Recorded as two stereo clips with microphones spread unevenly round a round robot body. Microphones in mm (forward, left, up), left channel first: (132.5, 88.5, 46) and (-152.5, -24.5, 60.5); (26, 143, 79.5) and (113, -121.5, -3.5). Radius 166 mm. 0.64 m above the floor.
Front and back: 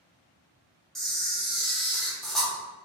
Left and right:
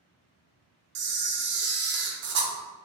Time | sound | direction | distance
0.9 | a camera shutter | 65° right | 0.6 m